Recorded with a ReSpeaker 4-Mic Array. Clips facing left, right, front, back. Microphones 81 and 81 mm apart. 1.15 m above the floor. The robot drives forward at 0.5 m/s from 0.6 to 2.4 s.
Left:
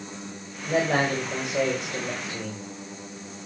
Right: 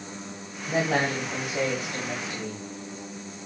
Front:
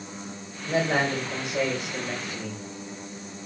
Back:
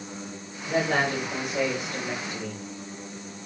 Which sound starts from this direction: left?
A man speaking, at 0.7 s.